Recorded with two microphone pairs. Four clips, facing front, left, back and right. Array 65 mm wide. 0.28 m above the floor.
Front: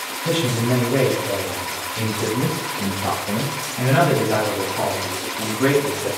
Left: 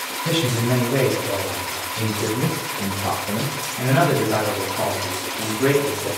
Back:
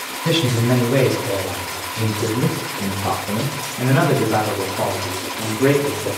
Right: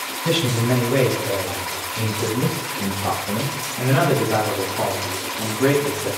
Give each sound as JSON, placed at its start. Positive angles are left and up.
{"t": 0.2, "sound": "a man speaking", "azimuth_deg": -155, "distance_m": 1.2}